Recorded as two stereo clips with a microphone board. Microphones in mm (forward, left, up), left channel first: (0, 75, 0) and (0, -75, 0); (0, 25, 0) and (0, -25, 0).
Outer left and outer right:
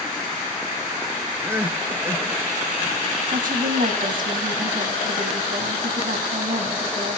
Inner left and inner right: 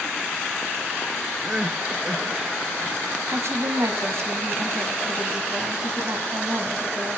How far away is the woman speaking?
About 2.0 m.